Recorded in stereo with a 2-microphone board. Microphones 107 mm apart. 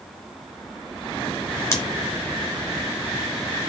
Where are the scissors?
25° left (ahead or behind), 1.7 m.